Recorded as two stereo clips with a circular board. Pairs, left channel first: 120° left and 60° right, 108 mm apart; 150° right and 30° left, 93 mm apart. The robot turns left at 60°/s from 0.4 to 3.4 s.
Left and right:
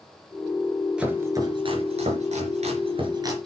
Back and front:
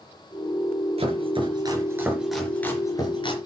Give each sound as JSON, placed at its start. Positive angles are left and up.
{"t": 1.0, "sound": "chopping", "azimuth_deg": 20, "distance_m": 4.5}